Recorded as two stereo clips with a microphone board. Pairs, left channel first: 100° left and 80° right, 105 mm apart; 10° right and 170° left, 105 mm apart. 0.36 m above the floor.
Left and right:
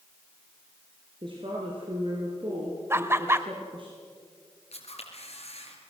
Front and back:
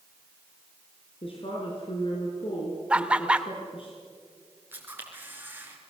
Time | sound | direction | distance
1.2 | a woman speaking | 40° right | 4.5 m
2.9 | laughter | 120° right | 1.2 m
4.7 | a camera shutter | 100° left | 4 m